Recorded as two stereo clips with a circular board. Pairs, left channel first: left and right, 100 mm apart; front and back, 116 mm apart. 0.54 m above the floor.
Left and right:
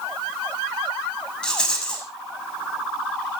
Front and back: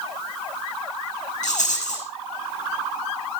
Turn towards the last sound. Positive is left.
turn(degrees=10)